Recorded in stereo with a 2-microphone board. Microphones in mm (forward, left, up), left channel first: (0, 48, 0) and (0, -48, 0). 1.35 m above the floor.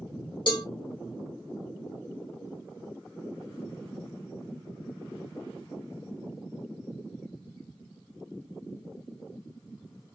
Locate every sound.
0.5 s a cowbell: 55° left (ahead or behind), 0.8 m